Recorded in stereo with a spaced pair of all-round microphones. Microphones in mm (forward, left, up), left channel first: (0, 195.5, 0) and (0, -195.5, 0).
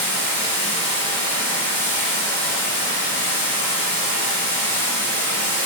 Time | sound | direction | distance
0.0 | running water | 60° left (ahead or behind) | 3.5 m